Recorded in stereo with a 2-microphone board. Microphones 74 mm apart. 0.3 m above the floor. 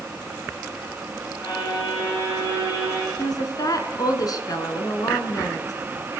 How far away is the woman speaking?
About 3 m.